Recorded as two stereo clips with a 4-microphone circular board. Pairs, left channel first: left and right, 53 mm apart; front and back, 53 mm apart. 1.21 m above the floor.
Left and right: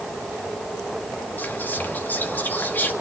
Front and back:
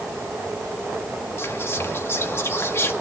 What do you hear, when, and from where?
1.4 s whispering: 35° left, 1.9 m